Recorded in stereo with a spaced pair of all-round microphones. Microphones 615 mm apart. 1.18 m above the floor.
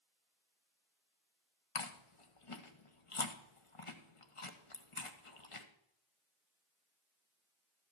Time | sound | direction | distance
1.8 | chewing | 55° left (ahead or behind) | 1.1 m